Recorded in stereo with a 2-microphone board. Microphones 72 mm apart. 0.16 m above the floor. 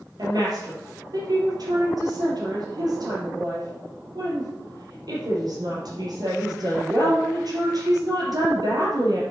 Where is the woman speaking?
65° right (ahead or behind), 3.5 m.